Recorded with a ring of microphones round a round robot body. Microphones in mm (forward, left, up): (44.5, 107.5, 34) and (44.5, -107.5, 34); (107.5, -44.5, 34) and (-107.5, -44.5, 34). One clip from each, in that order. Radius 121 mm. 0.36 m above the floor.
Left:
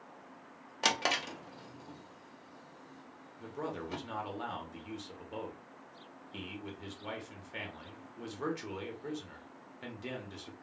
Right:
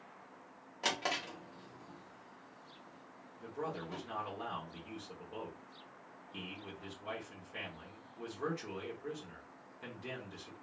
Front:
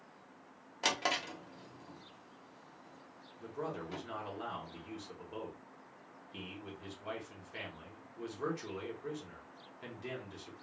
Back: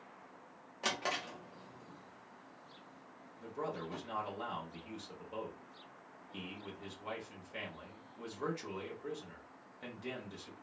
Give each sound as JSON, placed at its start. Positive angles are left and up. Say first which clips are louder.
{"t": 0.8, "sound": "a drawer", "louder": "left 5 dB, front 3 dB", "azimuth_deg": 65, "distance_m": 0.6}
{"t": 3.4, "sound": "a man speaking", "louder": "left 1 dB, even", "azimuth_deg": 95, "distance_m": 1.0}